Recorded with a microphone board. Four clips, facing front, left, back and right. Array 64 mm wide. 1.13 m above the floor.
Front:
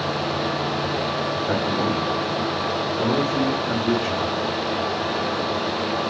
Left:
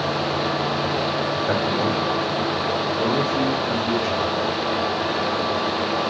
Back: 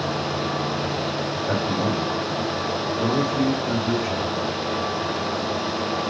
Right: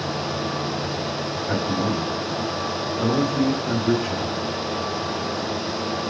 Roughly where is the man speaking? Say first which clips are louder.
Even, even; left.